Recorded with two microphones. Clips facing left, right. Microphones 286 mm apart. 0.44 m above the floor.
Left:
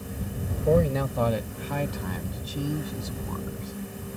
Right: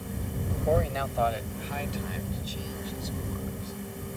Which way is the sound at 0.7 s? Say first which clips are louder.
Left 6 dB; 45° left (ahead or behind).